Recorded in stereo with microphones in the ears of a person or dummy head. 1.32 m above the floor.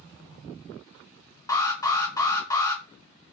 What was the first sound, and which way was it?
An alarm, 10° left (ahead or behind).